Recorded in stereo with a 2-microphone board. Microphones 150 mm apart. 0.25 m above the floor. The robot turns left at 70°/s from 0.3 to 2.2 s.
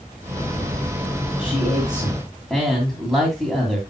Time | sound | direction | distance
1.4 | a man speaking | 60° left | 2 m